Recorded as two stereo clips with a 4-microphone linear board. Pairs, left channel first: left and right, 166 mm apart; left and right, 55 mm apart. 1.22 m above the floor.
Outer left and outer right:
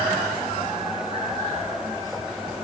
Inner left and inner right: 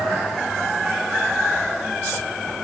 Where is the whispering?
No whispering in this recording.